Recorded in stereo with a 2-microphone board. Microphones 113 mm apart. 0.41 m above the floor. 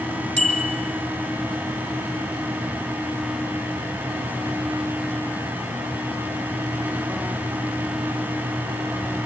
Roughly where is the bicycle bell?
Right.